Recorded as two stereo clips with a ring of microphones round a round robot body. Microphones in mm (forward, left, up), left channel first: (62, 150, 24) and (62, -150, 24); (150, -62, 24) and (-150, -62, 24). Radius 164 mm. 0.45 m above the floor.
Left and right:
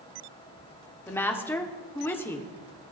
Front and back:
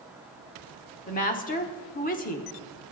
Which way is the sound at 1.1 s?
15° left.